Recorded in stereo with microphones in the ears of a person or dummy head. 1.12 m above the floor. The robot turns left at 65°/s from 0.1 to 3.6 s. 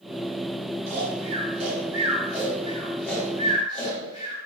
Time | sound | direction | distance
0.9 | snoring | 40° right (ahead or behind) | 1.9 m